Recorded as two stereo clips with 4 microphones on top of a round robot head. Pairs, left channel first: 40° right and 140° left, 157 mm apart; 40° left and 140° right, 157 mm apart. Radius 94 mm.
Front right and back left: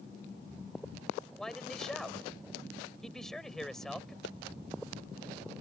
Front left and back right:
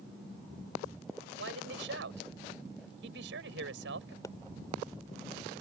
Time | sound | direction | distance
1.4 | a man speaking | 130° right | ?
4.2 | a pop | 30° right | ?